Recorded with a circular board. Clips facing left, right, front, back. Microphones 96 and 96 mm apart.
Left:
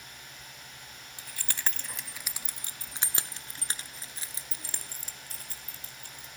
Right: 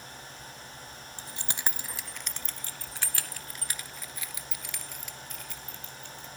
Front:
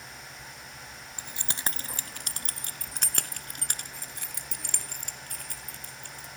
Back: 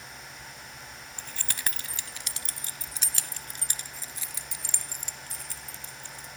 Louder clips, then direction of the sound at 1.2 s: Right 1 dB, front 2 dB; 70° right.